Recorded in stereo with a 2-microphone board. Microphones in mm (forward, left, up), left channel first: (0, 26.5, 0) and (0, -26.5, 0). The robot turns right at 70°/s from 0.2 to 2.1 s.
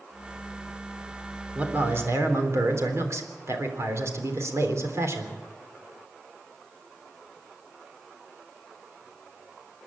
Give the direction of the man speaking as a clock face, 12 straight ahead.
5 o'clock.